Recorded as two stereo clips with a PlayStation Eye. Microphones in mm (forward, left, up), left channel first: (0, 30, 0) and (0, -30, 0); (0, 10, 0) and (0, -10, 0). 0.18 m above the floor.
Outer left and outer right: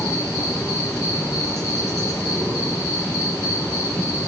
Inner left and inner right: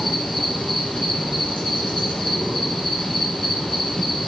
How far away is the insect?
About 6 m.